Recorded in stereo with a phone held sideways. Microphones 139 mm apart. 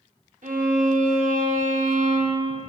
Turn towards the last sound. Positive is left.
turn(degrees=-70)  # may be behind; listen again after turning